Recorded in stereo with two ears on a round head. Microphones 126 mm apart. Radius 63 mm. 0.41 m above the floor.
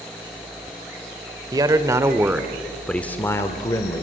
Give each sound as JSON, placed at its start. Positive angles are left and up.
{"t": 1.5, "sound": "a man speaking", "side_deg": -25, "distance_m": 1.6}